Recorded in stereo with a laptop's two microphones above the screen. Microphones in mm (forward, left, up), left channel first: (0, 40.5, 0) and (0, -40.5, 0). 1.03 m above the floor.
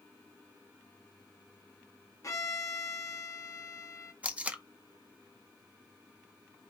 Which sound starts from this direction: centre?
Tape being pulled, at 4.2 s.